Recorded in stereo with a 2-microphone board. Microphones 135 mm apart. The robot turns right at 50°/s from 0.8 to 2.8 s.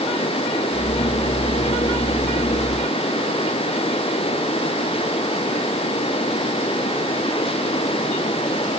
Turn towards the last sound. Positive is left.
No sound to turn to.